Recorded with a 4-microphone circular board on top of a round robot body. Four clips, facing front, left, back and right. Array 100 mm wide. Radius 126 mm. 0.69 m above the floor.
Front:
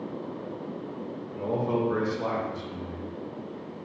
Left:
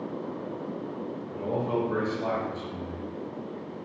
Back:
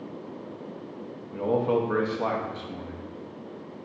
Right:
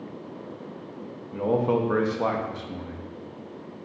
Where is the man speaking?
115° right, 0.9 m.